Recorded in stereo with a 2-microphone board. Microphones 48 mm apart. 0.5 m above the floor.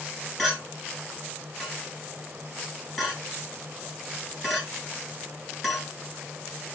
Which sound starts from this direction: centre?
A clink, at 0.4 s.